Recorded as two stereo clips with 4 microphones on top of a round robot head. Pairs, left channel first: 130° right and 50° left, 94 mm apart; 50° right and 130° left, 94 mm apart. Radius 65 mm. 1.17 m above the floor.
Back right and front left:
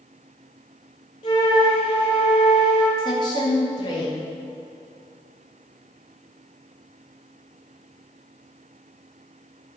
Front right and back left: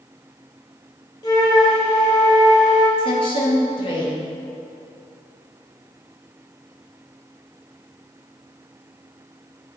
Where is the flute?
95° right, 1.3 m.